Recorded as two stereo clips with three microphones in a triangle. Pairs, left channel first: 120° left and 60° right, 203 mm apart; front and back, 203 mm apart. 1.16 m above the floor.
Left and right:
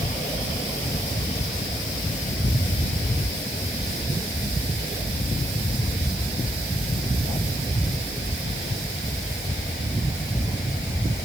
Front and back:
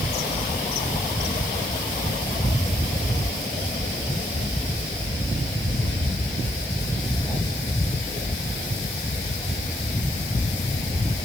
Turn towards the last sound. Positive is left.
No sound to turn to.